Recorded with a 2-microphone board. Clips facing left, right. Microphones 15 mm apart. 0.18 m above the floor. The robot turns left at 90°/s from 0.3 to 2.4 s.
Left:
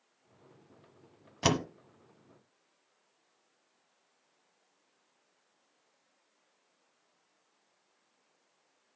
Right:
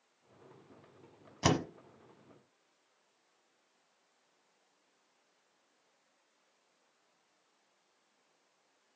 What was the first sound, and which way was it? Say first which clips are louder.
A door slam: left 1 dB; 10° left (ahead or behind).